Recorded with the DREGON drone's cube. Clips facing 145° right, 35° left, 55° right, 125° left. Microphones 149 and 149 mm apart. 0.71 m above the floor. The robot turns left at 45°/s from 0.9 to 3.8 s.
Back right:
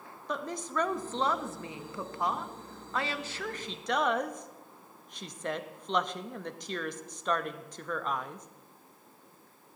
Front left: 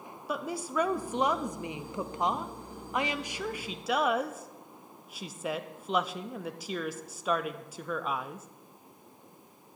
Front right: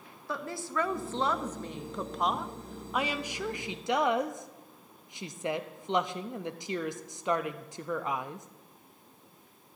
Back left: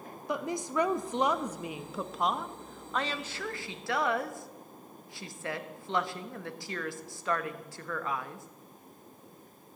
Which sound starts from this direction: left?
A woman speaking, at 0.3 s.